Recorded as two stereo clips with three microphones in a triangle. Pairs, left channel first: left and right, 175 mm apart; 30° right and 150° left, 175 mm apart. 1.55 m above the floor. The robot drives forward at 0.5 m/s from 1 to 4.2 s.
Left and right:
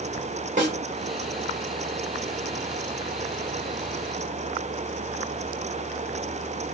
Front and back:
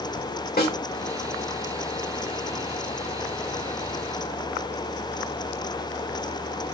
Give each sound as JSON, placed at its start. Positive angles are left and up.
{"t": 0.6, "sound": "a snare drum", "azimuth_deg": -50, "distance_m": 2.5}